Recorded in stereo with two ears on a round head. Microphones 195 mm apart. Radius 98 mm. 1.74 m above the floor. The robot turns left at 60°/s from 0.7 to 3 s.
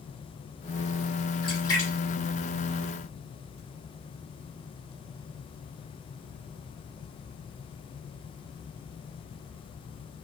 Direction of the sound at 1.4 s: 25° left (ahead or behind).